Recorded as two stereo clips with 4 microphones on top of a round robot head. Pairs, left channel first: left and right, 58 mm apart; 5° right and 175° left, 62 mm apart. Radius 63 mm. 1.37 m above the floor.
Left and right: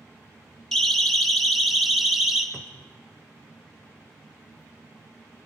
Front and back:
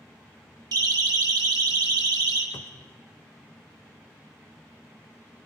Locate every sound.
0.7 s a siren: 170° left, 3 m; by 2.4 s 175° right, 3.5 m
2.5 s a cupboard door: 5° left, 0.7 m